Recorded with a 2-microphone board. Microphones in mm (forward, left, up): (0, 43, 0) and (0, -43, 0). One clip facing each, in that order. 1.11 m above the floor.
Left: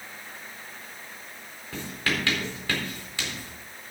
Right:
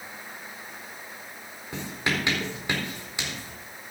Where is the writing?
20° right (ahead or behind), 4 m.